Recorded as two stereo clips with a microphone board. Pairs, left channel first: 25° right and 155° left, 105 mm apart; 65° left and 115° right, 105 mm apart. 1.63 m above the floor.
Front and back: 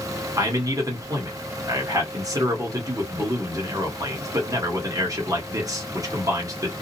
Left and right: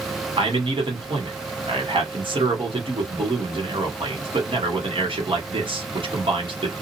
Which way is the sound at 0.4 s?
145° right.